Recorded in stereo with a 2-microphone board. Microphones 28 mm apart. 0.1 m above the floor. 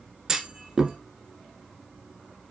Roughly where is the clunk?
Centre.